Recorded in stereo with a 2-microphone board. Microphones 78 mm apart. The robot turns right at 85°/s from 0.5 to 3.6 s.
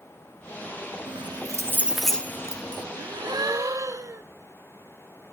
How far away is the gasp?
About 0.7 m.